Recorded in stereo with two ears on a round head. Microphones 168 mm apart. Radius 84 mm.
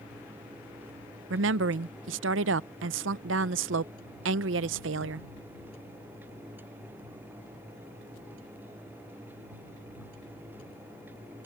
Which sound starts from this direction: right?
A woman speaking, at 1.3 s.